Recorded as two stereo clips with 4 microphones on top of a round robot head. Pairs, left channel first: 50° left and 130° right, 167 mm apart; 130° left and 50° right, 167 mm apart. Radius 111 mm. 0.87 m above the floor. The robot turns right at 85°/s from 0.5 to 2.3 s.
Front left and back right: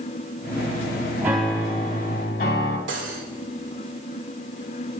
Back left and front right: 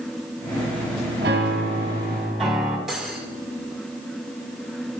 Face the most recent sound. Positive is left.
turn(degrees=-140)